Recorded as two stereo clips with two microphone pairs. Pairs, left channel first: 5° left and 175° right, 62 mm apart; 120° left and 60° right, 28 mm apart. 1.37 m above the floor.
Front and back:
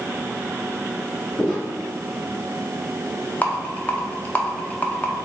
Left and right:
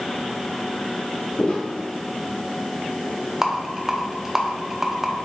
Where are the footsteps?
110° left, 2.0 m.